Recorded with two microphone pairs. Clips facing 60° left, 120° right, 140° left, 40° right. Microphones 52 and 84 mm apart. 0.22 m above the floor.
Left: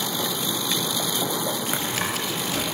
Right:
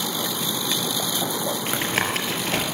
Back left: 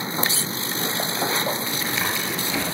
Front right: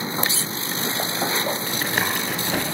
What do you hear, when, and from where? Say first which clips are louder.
1.7 s tapping: right 3 dB, front right 2 dB; 75° right, 5 m